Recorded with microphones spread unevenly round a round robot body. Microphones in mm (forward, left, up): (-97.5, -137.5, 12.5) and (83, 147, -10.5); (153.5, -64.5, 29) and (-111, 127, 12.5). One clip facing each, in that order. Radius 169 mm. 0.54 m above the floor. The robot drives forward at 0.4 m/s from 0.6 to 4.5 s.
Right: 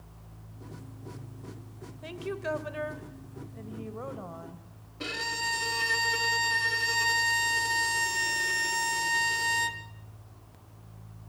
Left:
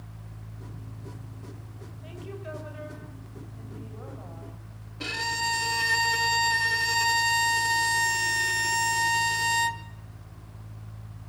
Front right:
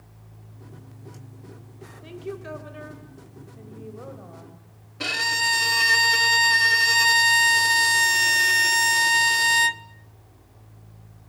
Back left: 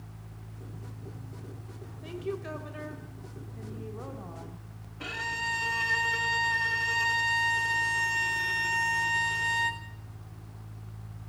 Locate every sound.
2.0 s a woman speaking: 125° right, 2.5 m; by 4.7 s 140° right, 3 m
5.0 s a violin: 20° right, 0.8 m